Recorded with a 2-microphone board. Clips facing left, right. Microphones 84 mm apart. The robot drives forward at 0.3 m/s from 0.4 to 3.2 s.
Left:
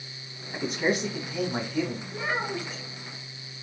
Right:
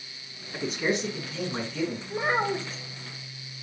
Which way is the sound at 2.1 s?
35° right (ahead or behind).